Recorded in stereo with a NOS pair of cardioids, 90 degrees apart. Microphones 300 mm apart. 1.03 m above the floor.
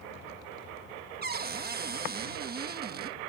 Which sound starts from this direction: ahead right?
A cupboard door, at 1.2 s.